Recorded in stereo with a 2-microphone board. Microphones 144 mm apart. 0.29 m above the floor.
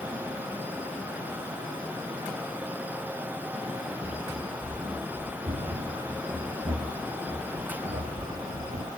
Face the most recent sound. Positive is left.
turn(degrees=-80)